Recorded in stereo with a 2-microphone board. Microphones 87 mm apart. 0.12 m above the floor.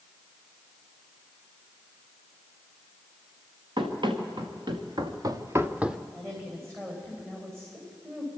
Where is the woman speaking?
30° right (ahead or behind), 8 m.